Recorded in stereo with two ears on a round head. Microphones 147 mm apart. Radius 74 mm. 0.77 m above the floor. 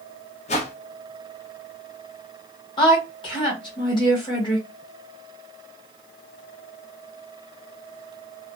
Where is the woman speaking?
30° left (ahead or behind), 1.4 m.